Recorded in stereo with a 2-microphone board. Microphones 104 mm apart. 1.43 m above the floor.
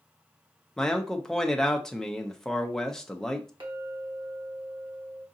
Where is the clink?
55° right (ahead or behind), 1.1 m.